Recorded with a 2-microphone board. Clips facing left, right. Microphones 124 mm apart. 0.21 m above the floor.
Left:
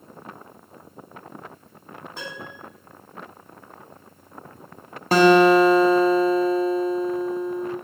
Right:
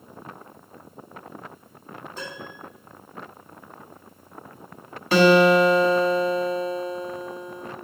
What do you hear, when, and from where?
2.2 s a piano: 65° left (ahead or behind), 3.5 m
5.1 s a guitar: 40° left (ahead or behind), 1.0 m